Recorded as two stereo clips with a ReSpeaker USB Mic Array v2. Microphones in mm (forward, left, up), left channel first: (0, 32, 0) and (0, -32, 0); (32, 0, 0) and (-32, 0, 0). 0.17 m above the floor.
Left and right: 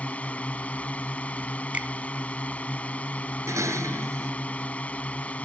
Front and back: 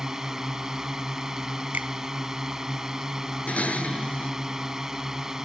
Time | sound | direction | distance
0.0 | a drone | 110° left | ?
1.7 | a finger snap | 140° right | ?
3.5 | dishes clattering | 65° right | ?